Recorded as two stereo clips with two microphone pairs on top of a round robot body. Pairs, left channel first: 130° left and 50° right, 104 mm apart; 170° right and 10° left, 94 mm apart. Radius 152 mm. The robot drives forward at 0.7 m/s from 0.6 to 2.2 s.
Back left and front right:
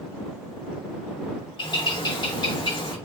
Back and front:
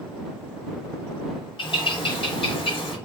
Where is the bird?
165° left, 2 m; by 3.0 s 170° left, 2.5 m.